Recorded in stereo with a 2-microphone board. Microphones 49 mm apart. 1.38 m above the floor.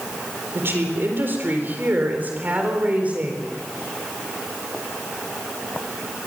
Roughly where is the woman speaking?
Right.